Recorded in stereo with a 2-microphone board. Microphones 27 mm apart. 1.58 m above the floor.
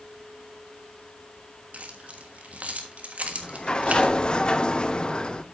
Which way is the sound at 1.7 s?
55° right (ahead or behind).